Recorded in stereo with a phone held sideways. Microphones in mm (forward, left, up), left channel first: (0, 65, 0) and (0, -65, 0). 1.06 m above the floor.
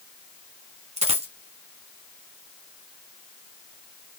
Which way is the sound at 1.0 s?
55° right (ahead or behind).